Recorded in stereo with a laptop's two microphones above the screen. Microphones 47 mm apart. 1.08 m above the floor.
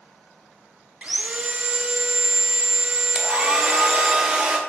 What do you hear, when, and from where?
1.0 s sawing: 25° right (ahead or behind), 0.6 m
3.1 s a hair dryer: 15° right (ahead or behind), 0.7 m